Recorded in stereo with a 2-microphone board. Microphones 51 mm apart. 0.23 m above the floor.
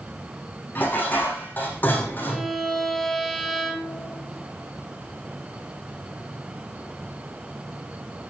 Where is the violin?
Centre (ahead or behind), 3 m.